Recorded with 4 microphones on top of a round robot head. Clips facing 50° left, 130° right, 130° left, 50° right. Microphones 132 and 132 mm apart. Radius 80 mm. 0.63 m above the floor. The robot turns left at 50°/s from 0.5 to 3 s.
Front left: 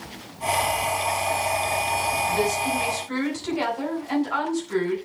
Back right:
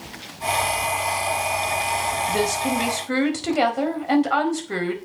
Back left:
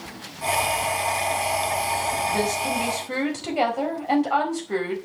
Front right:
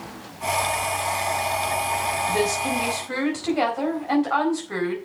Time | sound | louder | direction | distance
2.3 | a woman speaking | back right 3 dB, front right 1 dB | 120° right | 4.5 m